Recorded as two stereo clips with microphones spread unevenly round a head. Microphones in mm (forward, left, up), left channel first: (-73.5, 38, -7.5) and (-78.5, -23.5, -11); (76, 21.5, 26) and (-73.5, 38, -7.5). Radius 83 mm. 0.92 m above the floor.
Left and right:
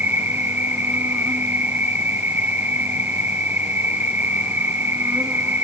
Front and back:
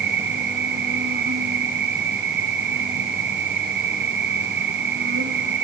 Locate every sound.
0.0 s an insect: 150° right, 2 m